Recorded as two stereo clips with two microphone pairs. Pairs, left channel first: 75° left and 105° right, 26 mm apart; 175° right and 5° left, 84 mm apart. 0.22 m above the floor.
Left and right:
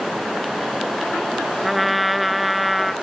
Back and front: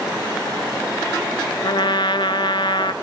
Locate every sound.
1.6 s a trumpet: 170° left, 0.9 m